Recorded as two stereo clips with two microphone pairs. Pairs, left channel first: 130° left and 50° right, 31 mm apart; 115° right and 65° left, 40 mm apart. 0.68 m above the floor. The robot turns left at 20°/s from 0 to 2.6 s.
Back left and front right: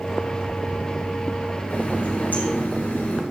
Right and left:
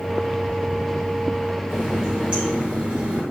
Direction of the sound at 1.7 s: 145° left.